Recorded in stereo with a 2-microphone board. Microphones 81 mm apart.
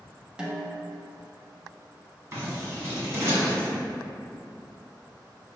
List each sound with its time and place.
0.4 s a snare drum: 10° right (ahead or behind), 0.6 m
2.3 s scissors: 30° right (ahead or behind), 1.5 m